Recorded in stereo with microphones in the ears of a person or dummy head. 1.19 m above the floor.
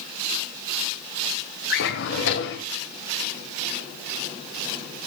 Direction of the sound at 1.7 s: 60° left (ahead or behind).